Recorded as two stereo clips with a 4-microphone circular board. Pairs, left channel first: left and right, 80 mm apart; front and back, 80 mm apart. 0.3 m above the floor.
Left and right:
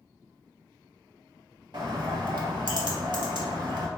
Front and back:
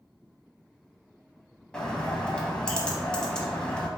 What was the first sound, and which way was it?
A bird, 80° right.